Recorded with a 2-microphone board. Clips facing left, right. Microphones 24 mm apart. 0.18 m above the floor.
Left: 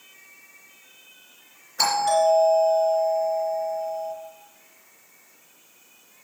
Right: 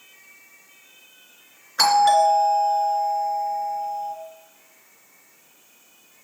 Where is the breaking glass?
No breaking glass in this recording.